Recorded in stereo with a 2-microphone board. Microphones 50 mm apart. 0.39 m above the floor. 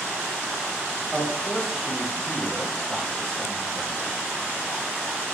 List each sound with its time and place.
1.1 s a man speaking: 5° left (ahead or behind), 0.9 m